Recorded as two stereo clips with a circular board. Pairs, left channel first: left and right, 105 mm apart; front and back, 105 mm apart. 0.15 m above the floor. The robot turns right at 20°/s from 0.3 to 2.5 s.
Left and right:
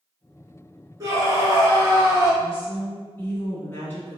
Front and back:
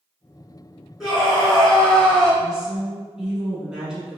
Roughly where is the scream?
Right.